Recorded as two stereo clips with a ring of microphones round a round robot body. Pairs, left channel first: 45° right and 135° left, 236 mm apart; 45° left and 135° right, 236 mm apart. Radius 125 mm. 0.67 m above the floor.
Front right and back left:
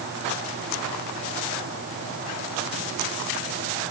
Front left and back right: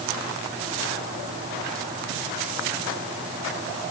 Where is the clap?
No clap in this recording.